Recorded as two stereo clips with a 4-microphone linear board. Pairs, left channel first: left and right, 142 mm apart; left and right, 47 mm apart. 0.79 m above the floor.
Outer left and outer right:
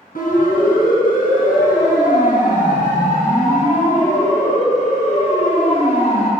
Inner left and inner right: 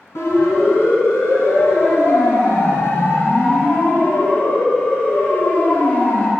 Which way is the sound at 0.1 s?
80° left.